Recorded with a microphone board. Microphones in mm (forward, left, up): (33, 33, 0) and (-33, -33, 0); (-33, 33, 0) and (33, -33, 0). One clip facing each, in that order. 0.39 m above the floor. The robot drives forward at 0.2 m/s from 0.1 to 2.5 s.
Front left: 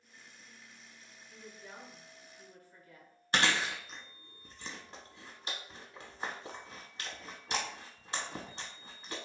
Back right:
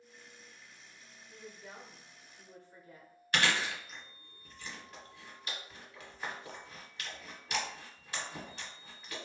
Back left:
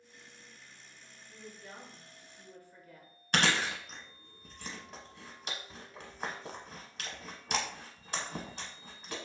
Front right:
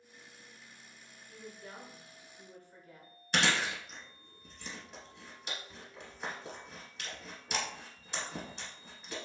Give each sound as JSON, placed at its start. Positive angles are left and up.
{"t": 1.3, "sound": "a woman speaking", "azimuth_deg": -70, "distance_m": 0.9}
{"t": 3.3, "sound": "chewing", "azimuth_deg": 110, "distance_m": 0.8}